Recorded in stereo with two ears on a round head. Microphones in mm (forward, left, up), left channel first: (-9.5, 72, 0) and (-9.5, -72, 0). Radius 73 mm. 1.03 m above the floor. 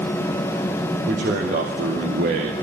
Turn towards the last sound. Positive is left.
turn(degrees=-65)  # may be behind; listen again after turning